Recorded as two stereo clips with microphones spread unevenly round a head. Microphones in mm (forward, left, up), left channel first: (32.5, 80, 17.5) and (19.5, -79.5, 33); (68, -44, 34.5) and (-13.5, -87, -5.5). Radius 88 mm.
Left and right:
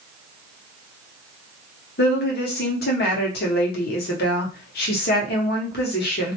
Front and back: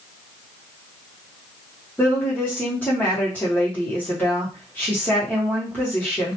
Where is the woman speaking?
110° left, 0.9 m.